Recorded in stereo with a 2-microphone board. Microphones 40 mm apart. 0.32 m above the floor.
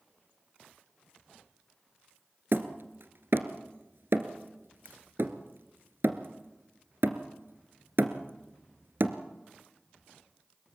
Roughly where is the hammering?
Right.